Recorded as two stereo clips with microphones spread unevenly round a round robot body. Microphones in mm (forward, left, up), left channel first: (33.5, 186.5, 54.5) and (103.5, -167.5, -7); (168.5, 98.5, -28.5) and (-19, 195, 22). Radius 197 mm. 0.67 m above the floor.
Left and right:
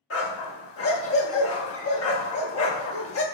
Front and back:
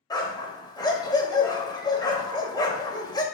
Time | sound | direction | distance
0.1 | a dog barking | 50° left | 1.2 m